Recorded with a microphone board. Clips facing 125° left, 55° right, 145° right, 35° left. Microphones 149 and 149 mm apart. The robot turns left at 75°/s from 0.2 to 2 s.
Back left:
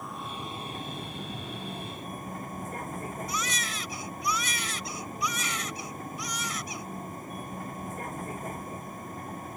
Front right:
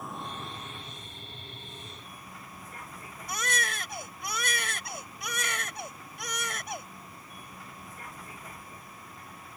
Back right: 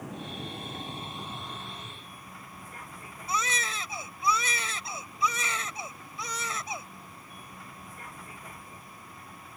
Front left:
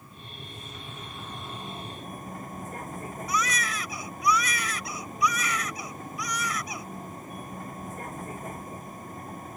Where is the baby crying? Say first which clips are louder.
Even, front left 2 dB; 85° right.